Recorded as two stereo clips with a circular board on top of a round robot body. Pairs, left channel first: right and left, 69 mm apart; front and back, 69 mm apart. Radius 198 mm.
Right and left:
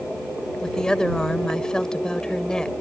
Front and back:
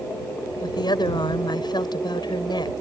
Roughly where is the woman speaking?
Ahead.